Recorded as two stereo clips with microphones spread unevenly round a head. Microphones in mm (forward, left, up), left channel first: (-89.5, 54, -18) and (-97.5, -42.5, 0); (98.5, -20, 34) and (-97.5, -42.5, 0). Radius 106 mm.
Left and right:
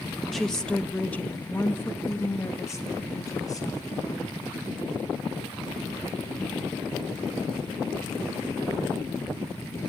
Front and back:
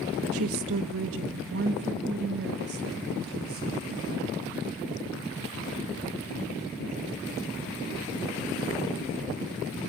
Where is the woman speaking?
175° left, 1.4 m; by 4.4 s 135° left, 3.5 m.